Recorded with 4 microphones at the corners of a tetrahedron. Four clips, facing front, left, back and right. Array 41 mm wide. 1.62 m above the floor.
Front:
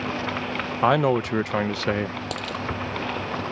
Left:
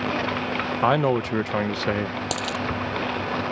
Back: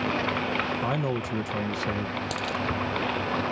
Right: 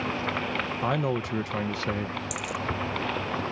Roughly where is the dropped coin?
Left.